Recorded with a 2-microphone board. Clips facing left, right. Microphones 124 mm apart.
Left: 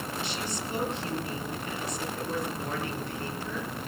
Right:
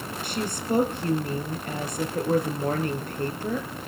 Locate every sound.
0.2 s a woman speaking: 50° right (ahead or behind), 4 m